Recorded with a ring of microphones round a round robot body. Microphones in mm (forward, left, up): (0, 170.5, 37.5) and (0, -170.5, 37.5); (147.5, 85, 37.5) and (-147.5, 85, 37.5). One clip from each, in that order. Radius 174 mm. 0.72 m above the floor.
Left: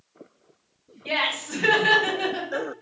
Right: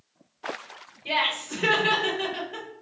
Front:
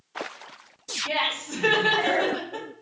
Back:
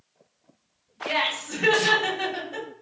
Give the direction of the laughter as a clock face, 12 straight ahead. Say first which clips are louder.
Even, back 2 dB; 7 o'clock.